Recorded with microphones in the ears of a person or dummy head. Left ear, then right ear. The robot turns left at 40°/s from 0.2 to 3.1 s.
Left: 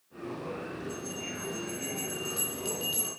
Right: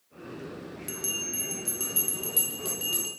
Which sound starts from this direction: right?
A bell, at 0.9 s.